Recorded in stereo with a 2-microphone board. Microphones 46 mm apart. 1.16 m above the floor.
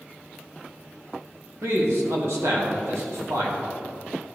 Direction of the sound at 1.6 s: 75° right (ahead or behind).